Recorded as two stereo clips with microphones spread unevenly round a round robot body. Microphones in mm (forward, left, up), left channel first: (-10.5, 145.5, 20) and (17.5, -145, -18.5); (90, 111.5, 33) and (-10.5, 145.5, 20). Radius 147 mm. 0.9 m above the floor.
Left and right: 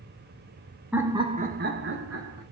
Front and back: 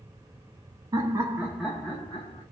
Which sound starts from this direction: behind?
Laughter, at 0.9 s.